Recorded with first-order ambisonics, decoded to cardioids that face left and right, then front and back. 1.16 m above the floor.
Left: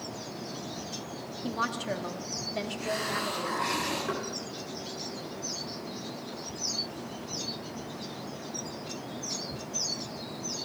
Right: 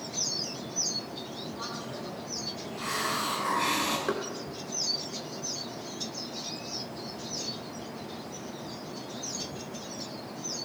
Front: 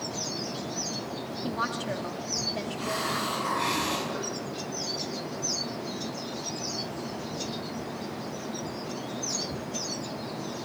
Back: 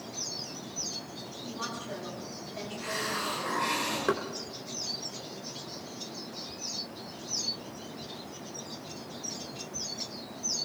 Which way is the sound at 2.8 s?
60° right.